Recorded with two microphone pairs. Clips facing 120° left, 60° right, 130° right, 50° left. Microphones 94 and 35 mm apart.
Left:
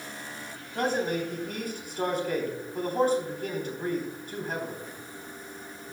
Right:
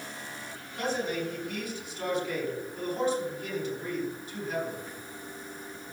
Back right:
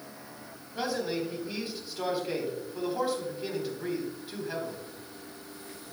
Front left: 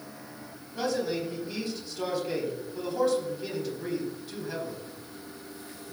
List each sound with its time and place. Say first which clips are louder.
0.8 s a man speaking: left 3 dB, front left 2 dB; 160° left, 4 m